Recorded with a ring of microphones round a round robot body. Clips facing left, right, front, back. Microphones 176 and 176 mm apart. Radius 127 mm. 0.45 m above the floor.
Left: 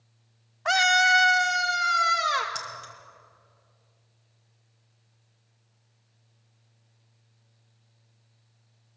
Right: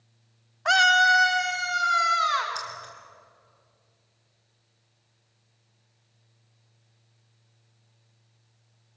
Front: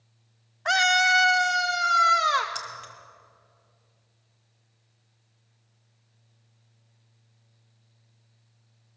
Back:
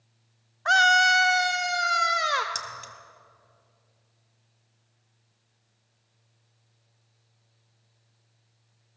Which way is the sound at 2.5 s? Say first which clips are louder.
Right 1 dB, even; 140° left.